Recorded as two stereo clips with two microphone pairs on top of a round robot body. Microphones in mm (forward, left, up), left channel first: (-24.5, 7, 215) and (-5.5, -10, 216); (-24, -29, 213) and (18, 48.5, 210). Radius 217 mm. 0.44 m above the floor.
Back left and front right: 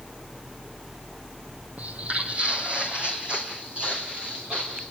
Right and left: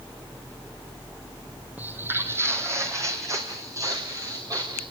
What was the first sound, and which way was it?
Footsteps, 10° right.